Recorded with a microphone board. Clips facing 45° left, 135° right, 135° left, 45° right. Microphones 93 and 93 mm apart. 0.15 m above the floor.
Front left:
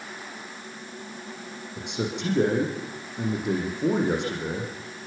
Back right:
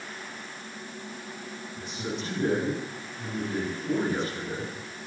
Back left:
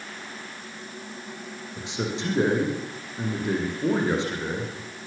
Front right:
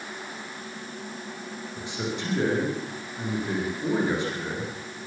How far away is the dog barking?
I don't hear a dog barking.